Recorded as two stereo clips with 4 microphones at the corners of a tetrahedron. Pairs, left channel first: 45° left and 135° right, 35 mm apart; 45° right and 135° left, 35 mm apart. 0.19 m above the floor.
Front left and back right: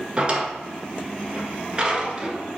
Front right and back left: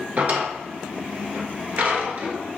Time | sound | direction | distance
0.2 | a drawer | 165° left | 1.1 m